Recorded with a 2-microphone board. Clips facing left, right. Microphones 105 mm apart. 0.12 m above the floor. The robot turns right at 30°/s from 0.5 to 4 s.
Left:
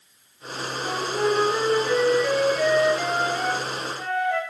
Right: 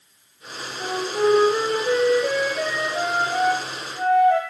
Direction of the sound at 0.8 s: 145° right.